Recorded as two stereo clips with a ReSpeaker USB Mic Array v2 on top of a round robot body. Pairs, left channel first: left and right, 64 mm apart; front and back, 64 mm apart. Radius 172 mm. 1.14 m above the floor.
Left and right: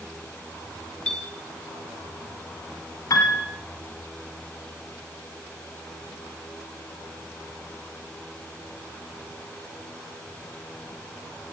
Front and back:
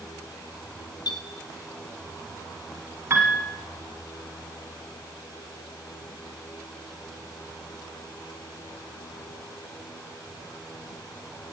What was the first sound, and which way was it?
A clink, 15° left.